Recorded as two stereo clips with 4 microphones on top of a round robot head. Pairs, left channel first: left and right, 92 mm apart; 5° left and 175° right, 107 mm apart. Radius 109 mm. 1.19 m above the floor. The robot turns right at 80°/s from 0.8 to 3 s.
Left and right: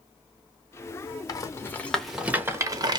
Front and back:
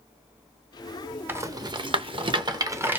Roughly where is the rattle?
Behind left.